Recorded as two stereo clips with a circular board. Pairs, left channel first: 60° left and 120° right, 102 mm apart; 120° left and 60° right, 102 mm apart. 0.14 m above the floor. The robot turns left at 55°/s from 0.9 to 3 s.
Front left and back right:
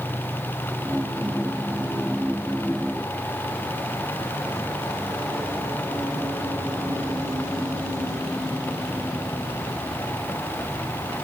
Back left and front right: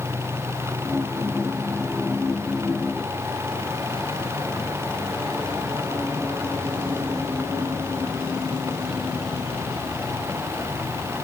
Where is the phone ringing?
No phone ringing in this recording.